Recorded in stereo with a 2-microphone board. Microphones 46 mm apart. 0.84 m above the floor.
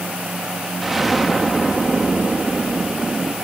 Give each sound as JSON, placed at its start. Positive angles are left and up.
{"t": 0.8, "sound": "an explosion", "side_deg": -5, "distance_m": 1.6}